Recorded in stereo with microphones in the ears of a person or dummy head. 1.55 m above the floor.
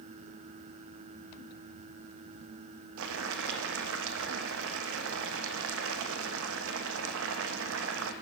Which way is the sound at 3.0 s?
75° right (ahead or behind).